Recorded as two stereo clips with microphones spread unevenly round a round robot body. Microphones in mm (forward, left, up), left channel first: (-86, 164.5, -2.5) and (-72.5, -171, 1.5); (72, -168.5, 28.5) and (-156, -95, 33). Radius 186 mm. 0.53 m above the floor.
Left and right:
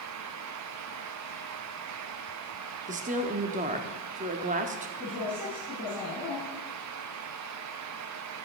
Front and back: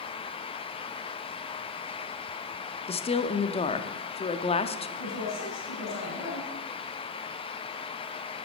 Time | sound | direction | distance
2.9 | a woman speaking | 45° right | 0.7 m
5.0 | a woman speaking | 5° right | 5 m